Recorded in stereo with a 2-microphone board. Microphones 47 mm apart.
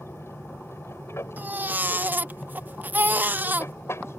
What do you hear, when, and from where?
0.0 s an aircraft: 65° left (ahead or behind)
1.4 s a baby crying: 40° right (ahead or behind)